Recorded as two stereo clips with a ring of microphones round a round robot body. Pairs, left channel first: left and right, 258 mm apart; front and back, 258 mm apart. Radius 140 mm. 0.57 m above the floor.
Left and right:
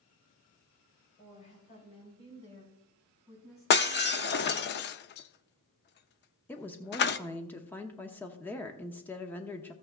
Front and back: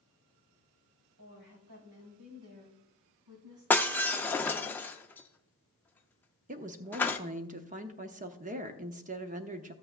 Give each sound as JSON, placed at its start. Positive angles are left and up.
{"t": 1.2, "sound": "a woman speaking", "azimuth_deg": 155, "distance_m": 4.0}
{"t": 3.7, "sound": "breaking glass", "azimuth_deg": 80, "distance_m": 0.5}
{"t": 6.5, "sound": "a woman speaking", "azimuth_deg": 165, "distance_m": 0.8}